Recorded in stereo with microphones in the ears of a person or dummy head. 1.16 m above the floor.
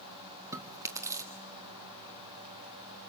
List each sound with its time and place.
0.5 s chewing: 15° right (ahead or behind), 1.3 m